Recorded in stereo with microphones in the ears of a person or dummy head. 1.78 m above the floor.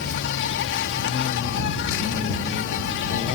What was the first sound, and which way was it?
An insect, 75° left (ahead or behind).